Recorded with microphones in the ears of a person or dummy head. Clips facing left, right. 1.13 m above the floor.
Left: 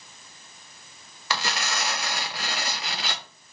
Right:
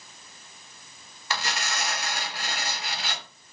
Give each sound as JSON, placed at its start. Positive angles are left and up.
{"t": 1.3, "sound": "tearing paper", "side_deg": 60, "distance_m": 0.6}